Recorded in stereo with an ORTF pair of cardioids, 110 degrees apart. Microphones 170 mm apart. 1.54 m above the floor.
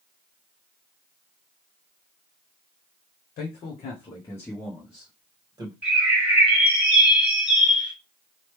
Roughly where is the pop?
No pop in this recording.